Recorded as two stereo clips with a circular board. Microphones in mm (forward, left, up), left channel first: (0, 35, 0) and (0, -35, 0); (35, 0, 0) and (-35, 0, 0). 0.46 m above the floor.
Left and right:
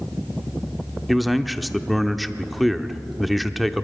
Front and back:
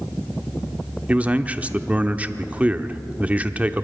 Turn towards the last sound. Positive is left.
turn(degrees=180)